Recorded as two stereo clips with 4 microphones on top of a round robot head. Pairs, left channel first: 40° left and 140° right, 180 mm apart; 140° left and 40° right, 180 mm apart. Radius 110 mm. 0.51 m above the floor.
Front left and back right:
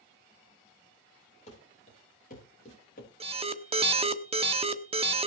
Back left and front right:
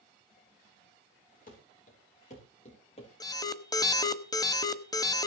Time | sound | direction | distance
1.5 | running footsteps | 95° left | 7 m
3.2 | an alarm | 165° right | 1.3 m